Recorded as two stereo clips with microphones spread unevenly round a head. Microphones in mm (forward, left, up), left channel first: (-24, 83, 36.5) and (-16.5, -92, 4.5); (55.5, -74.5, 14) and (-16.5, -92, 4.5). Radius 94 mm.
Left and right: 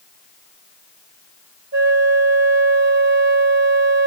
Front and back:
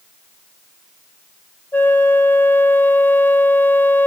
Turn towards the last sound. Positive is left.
turn(degrees=-50)